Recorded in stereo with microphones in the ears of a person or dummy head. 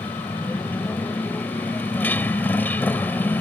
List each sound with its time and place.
0.0 s a motorcycle: 5° left (ahead or behind)